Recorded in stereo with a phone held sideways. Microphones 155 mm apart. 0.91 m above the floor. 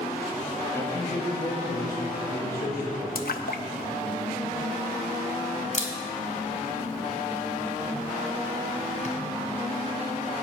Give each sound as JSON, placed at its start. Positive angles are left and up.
{"t": 0.7, "sound": "a man speaking", "side_deg": 15, "distance_m": 1.3}
{"t": 3.1, "sound": "a splash", "side_deg": 75, "distance_m": 0.6}
{"t": 5.7, "sound": "a camera shutter", "side_deg": 55, "distance_m": 1.4}